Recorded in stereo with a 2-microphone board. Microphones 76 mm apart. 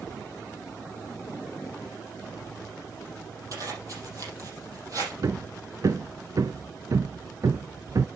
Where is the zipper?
50° right (ahead or behind), 5.5 m.